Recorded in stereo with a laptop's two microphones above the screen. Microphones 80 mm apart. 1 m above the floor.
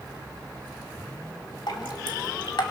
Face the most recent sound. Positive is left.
turn(degrees=65)  # may be behind; listen again after turning